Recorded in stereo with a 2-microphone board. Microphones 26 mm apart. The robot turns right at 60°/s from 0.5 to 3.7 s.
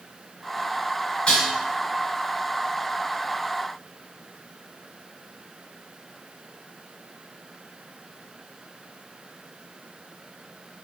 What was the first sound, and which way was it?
Dishes clattering, 50° left (ahead or behind).